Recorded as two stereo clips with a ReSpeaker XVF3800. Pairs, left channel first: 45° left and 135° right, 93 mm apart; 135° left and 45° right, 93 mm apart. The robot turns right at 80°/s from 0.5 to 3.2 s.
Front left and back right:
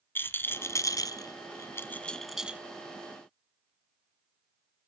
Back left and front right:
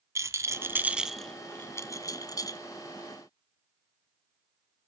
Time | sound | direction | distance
0.1 | a rattle | 10° right | 1.1 m